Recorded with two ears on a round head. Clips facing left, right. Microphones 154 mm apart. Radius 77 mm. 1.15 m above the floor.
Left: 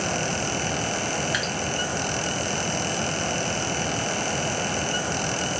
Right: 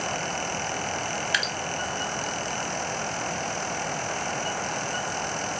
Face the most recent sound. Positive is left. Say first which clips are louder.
# left 3 dB
turn(degrees=-30)  # may be behind; listen again after turning